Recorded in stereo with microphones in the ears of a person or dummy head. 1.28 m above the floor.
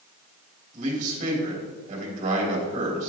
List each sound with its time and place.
0.7 s a man speaking: 45° right (ahead or behind), 3 m